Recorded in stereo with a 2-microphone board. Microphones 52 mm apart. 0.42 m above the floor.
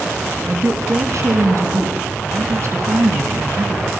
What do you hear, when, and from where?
0.5 s a woman speaking: 75° right (ahead or behind), 4.5 m